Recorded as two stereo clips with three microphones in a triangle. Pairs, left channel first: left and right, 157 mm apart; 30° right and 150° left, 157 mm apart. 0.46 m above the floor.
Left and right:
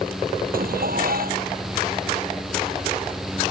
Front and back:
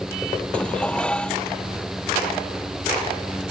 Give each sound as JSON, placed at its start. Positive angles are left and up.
{"t": 0.5, "sound": "dishes clattering", "azimuth_deg": -115}